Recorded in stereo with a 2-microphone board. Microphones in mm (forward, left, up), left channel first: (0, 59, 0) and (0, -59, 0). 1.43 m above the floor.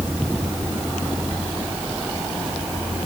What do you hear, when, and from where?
Only background noise.